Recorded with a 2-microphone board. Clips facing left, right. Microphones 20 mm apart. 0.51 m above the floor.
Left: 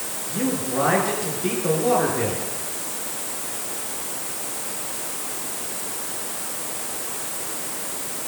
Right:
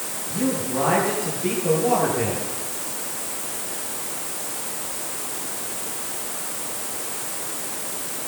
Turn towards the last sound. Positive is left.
turn(degrees=25)  # may be behind; listen again after turning